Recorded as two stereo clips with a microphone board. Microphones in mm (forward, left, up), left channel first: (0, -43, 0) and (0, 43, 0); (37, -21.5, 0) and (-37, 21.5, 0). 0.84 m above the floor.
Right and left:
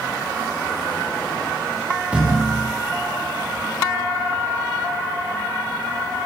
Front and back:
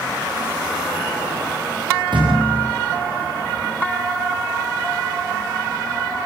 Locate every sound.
2.1 s a thud: 170° left, 9 m